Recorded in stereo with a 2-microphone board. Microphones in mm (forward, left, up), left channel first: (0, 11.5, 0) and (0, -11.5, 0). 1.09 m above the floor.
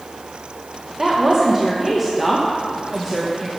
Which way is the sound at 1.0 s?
15° right (ahead or behind).